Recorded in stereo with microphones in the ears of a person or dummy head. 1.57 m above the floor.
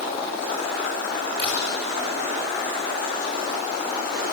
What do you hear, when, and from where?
1.4 s a camera shutter: 35° right (ahead or behind), 7 m